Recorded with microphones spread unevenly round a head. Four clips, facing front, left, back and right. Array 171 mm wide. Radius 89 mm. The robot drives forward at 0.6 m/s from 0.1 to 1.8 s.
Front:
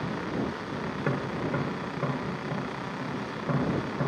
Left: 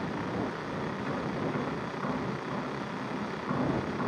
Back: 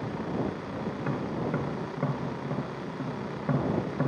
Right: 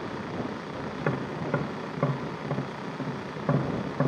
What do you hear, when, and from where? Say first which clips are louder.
0.9 s tapping: right 2 dB, front 2 dB; 65° right, 0.7 m; by 4.1 s 110° right, 0.7 m